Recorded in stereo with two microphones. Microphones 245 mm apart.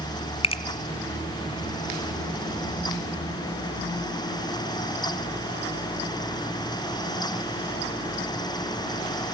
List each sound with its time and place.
0.4 s a finger snap: 25° left (ahead or behind), 1.9 m